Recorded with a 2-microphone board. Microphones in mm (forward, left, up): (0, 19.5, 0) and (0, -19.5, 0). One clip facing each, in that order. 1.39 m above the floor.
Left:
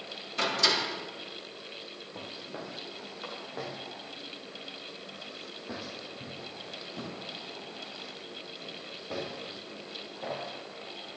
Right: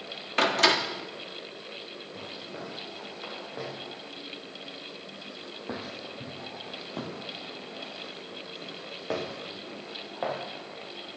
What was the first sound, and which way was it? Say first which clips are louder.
A door slam: right 5 dB; 55° right (ahead or behind).